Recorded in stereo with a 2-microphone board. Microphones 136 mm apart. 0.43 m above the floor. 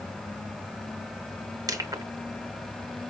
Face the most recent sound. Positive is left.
turn(degrees=-25)  # may be behind; listen again after turning